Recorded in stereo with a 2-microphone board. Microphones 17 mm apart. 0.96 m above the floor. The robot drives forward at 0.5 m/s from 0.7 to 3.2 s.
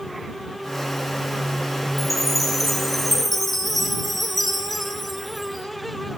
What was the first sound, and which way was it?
A chime, centre (ahead or behind).